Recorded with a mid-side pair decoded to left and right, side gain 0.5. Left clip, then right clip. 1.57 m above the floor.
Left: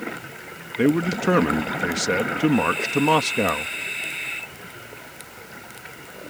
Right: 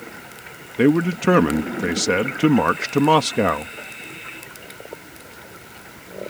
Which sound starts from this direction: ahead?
A man speaking, at 0.8 s.